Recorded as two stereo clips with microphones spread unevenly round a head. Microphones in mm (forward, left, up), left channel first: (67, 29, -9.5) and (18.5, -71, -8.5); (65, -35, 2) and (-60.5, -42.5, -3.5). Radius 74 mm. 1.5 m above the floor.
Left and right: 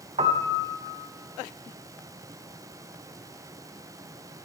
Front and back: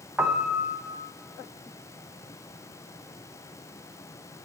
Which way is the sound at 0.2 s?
100° right.